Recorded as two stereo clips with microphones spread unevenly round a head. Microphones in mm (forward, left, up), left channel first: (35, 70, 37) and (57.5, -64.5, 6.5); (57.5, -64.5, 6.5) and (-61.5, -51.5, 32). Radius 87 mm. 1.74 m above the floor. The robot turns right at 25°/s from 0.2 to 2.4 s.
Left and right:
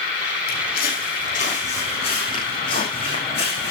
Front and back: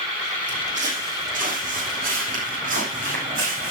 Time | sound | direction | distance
0.5 | footsteps | 130° left | 6 m